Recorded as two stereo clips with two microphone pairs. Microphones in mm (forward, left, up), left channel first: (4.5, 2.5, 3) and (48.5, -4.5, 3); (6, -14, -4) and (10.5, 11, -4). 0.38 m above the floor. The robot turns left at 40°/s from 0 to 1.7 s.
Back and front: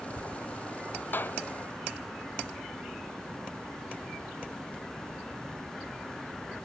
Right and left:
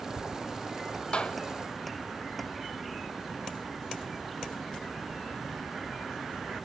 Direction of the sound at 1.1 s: 145° right.